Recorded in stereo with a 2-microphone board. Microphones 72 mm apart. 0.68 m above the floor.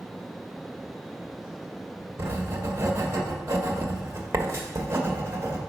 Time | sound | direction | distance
2.2 | writing | 40° right (ahead or behind) | 1.1 m